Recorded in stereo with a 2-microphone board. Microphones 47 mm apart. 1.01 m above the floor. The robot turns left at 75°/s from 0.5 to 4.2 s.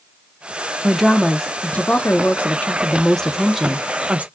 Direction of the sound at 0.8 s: 165° right.